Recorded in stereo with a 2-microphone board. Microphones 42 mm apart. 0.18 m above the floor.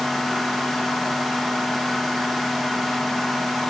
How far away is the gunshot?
No gunshot in this recording.